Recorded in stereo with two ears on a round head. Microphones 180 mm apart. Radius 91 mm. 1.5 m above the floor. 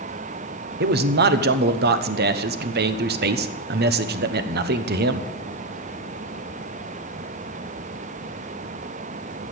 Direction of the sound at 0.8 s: 55° right (ahead or behind).